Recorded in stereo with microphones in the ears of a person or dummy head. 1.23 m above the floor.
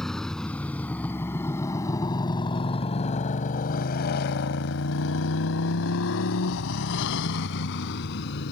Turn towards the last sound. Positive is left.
turn(degrees=60)  # may be behind; listen again after turning